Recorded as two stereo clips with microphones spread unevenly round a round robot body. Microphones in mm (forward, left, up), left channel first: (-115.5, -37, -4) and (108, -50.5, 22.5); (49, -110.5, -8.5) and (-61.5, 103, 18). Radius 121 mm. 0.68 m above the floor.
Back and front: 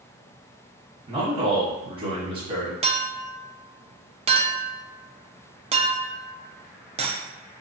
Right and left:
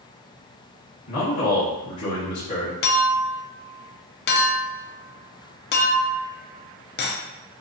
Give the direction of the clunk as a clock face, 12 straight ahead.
I don't hear a clunk.